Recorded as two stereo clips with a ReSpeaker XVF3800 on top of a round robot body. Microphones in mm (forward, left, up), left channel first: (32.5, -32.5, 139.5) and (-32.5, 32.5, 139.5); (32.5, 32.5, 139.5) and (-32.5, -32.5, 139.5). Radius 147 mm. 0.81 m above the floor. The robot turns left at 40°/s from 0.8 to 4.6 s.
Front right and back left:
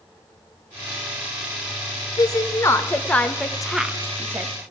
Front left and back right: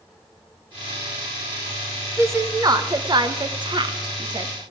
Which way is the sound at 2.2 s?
80° right.